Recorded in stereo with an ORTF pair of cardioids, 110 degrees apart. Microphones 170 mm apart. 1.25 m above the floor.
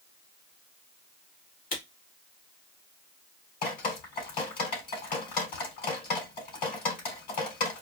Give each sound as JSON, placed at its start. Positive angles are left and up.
{"t": 1.7, "sound": "a camera shutter", "azimuth_deg": 60, "distance_m": 1.9}
{"t": 3.6, "sound": "dripping", "azimuth_deg": 60, "distance_m": 3.5}